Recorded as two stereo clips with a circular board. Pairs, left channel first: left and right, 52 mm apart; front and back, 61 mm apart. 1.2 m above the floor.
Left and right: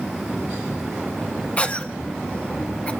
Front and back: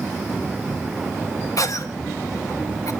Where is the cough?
25° left, 1.8 m.